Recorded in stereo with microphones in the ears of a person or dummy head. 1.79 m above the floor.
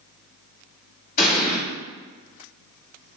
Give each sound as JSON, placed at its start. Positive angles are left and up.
{"t": 1.2, "sound": "an explosion", "side_deg": 40, "distance_m": 1.5}